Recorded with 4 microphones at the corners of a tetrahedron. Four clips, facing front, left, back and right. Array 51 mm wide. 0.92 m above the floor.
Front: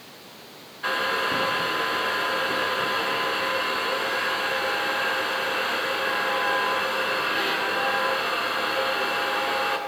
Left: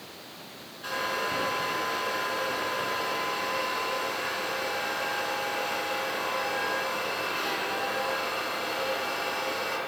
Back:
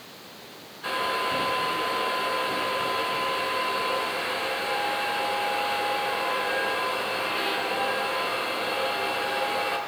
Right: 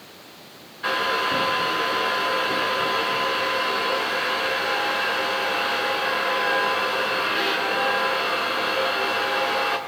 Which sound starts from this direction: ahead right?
A hair dryer, at 0.8 s.